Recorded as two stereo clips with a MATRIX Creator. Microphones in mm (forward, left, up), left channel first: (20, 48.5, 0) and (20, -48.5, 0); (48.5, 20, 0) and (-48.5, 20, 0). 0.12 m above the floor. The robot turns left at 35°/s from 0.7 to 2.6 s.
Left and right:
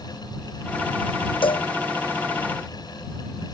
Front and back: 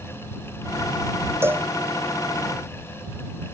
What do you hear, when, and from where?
1.4 s a cowbell: 115° left; by 1.7 s 105° left